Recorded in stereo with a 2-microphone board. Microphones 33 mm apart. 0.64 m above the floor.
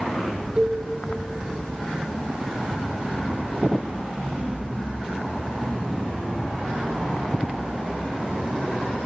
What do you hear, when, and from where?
0.6 s a cowbell: 25° right (ahead or behind), 1.0 m